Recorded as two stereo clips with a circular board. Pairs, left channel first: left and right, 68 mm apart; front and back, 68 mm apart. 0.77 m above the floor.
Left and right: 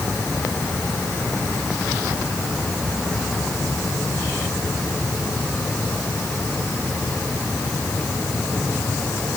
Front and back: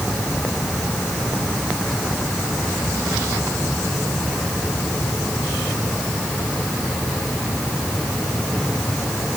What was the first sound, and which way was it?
Only background noise.